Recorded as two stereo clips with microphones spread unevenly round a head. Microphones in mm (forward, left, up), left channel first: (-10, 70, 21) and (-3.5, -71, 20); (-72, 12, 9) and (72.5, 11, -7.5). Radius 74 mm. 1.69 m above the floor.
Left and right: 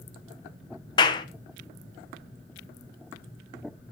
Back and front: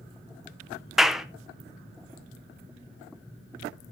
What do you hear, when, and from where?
1.0 s a clap: 100° left, 0.6 m